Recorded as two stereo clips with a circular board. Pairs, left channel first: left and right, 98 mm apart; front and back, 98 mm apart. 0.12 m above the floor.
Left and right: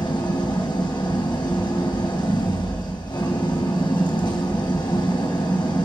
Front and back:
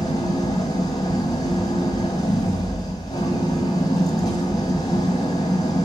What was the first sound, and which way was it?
An engine running, 45° left.